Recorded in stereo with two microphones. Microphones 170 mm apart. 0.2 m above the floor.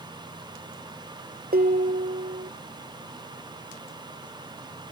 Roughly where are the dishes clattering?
Right.